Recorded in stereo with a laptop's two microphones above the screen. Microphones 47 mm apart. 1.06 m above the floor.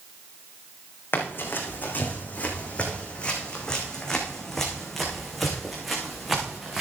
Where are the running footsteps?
45° left (ahead or behind), 3.5 m; by 6.8 s 10° right (ahead or behind), 5 m.